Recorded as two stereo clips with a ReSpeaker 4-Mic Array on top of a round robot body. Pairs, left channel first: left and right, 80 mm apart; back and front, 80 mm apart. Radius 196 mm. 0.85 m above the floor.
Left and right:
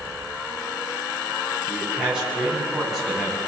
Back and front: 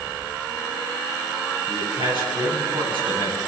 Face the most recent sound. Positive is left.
turn(degrees=0)